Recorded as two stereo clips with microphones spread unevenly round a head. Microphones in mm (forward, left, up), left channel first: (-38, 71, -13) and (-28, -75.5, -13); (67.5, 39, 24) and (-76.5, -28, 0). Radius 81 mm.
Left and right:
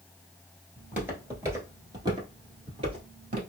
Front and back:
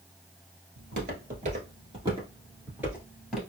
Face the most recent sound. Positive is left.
turn(degrees=-55)